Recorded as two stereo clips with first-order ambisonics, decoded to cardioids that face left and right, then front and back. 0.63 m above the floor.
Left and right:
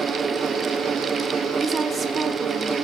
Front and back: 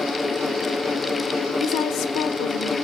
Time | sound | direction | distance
1.6 | a woman speaking | 25° right | 1.4 m